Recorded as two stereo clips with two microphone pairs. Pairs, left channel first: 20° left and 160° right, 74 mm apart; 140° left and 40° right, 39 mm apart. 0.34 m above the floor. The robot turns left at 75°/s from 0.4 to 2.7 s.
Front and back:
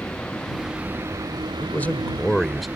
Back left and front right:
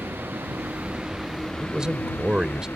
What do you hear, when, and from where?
0.0 s a vehicle: 55° right; by 2.8 s 130° left
1.6 s a man speaking: 10° left; by 2.7 s 70° right